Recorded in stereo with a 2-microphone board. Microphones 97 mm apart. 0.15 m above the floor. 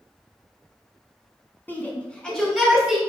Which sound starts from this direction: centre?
A shout, at 1.7 s.